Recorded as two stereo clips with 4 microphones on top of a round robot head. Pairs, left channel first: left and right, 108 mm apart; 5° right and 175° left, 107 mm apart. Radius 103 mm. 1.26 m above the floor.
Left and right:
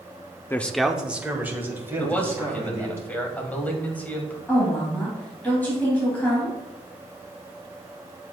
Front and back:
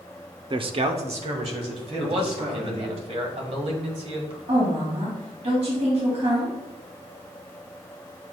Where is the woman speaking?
165° left, 3 m.